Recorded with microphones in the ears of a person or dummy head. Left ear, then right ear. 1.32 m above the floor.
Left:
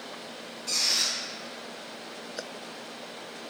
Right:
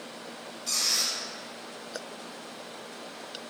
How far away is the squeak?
About 1.3 m.